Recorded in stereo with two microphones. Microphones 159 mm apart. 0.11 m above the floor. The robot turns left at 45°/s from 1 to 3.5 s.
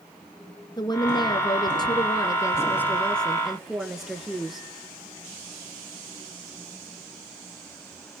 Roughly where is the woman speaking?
Left.